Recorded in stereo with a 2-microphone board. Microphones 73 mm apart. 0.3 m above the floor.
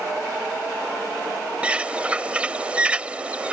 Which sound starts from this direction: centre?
A bird, at 1.6 s.